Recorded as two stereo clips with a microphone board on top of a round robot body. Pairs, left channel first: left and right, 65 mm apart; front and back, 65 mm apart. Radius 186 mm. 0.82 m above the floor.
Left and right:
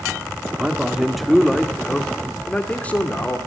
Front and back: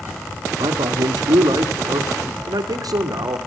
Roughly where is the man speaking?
Behind.